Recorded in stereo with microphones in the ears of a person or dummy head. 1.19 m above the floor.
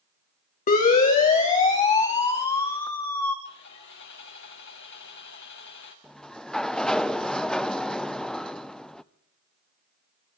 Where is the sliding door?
Centre (ahead or behind), 0.5 m.